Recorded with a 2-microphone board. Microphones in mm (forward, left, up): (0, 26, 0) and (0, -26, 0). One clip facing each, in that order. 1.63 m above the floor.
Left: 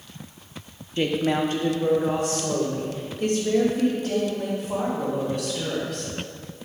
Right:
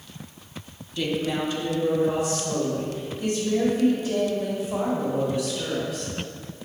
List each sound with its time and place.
1.0 s a woman speaking: 35° left (ahead or behind), 0.8 m; by 6.1 s 70° left (ahead or behind), 5.5 m